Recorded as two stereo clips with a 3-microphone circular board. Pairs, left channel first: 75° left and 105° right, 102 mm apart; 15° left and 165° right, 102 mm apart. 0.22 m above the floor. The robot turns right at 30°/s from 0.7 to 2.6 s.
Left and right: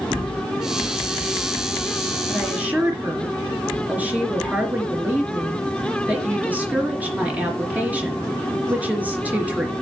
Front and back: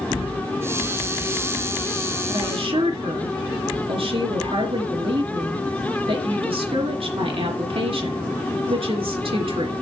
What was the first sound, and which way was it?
A woman speaking, 170° left.